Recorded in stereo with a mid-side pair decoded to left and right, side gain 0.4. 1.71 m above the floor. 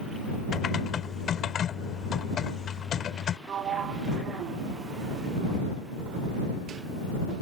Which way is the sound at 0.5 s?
65° left.